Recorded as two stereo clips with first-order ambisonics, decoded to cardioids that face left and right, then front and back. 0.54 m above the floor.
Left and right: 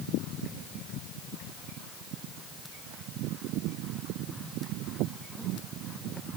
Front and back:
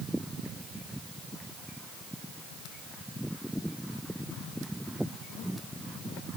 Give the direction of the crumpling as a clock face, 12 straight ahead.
I don't hear crumpling.